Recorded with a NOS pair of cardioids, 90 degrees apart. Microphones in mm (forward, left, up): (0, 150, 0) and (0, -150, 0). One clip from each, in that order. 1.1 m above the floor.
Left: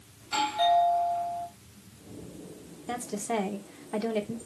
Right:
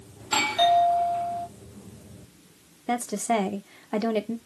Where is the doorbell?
65° right, 3 m.